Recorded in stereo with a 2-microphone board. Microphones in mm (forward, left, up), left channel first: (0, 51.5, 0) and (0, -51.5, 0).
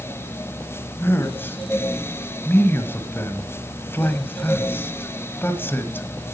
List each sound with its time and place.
1.0 s a man speaking: 20° left (ahead or behind), 1.4 m